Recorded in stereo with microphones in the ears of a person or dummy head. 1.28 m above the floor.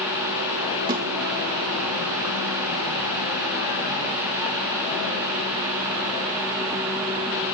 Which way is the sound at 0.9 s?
20° right (ahead or behind).